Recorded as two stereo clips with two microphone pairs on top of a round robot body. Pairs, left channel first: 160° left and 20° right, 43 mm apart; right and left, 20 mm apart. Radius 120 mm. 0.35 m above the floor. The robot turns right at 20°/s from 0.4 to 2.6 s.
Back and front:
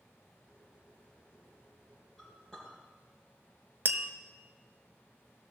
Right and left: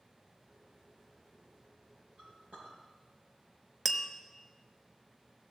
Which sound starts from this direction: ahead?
Tapping, at 3.9 s.